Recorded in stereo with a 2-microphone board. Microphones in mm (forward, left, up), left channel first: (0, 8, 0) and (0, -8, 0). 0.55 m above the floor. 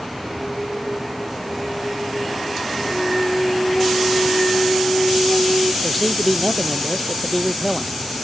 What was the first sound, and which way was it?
A flute, 85° left.